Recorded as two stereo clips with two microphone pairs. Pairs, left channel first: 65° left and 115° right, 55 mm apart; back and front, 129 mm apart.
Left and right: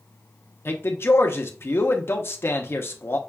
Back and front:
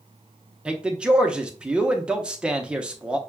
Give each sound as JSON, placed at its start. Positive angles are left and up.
{"t": 0.7, "sound": "a man speaking", "azimuth_deg": 80, "distance_m": 0.6}